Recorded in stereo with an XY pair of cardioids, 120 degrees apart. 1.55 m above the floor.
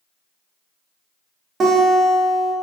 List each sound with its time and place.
1.6 s a guitar: 40° right, 0.7 m